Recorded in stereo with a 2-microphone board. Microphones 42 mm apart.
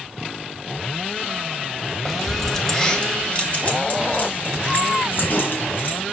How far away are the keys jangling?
About 1.2 m.